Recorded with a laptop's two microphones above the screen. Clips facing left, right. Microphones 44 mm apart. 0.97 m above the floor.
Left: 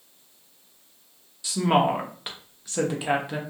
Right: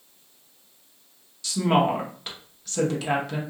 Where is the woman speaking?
15° left (ahead or behind), 0.8 m.